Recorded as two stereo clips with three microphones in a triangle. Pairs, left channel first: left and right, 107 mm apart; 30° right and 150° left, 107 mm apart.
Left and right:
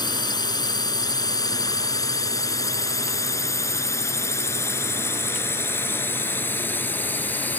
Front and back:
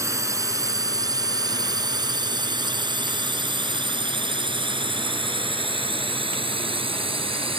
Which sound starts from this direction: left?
A drone, at 0.0 s.